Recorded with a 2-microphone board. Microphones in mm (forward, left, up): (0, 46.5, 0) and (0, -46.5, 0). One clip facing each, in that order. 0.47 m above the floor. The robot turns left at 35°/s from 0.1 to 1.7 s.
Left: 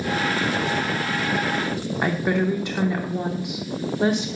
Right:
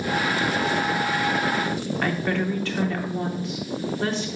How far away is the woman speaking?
About 0.8 m.